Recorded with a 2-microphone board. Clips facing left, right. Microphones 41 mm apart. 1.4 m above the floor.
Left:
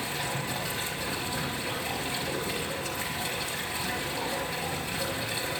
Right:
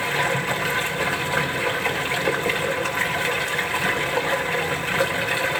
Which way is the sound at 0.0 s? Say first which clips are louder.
Right 10 dB; 75° right (ahead or behind).